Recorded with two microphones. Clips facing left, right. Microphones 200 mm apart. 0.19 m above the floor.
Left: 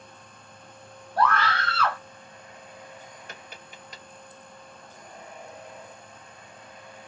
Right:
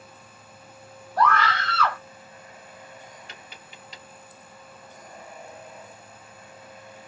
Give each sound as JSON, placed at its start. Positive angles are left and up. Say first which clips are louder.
{"t": 1.2, "sound": "a scream", "louder": "right 1 dB", "side_deg": 30, "distance_m": 1.8}
{"t": 3.3, "sound": "tapping", "louder": "left 2 dB", "side_deg": 45, "distance_m": 1.6}